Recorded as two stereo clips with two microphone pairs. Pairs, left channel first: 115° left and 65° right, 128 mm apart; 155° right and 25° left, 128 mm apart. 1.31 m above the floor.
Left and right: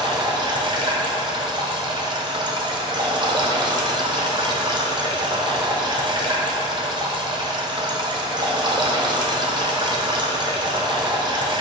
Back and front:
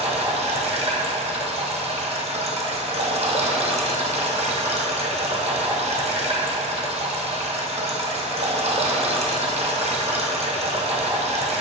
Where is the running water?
10° right, 0.8 m.